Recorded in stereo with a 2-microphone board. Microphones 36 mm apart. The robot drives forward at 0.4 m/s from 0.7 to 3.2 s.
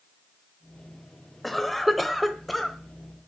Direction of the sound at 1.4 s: 5° left (ahead or behind).